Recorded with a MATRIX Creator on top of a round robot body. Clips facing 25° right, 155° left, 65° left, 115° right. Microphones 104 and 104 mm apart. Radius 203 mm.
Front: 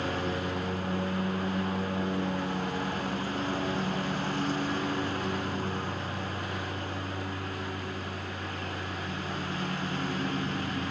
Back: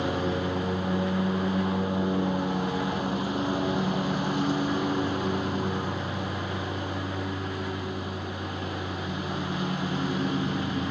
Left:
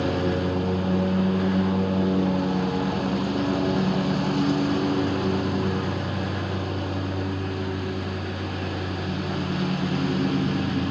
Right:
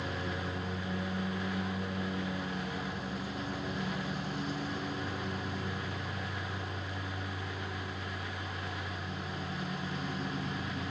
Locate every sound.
0.0 s a lawn mower: 85° left